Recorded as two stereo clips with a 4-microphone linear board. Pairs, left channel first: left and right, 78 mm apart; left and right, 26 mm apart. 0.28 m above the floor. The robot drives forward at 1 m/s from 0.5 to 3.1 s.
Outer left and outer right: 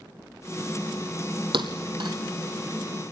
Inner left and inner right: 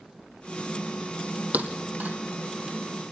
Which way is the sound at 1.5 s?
80° right.